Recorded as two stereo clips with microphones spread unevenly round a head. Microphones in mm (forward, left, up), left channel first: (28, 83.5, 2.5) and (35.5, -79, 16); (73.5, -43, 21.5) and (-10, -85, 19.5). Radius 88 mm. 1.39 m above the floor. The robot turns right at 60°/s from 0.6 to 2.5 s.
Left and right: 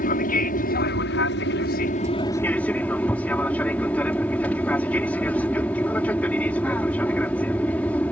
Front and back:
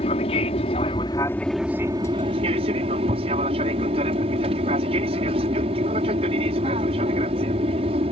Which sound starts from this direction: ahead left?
An aircraft, at 0.0 s.